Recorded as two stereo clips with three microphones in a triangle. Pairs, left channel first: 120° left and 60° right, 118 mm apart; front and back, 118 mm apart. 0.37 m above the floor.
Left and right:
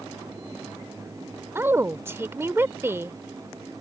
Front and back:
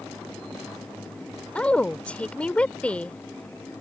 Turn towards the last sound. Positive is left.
turn(degrees=-60)